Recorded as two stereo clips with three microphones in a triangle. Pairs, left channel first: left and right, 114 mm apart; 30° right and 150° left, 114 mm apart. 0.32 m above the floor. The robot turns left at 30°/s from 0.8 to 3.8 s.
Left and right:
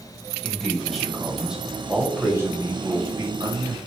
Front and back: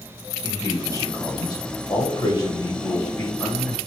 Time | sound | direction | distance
0.4 | a man speaking | 10° left | 1.4 m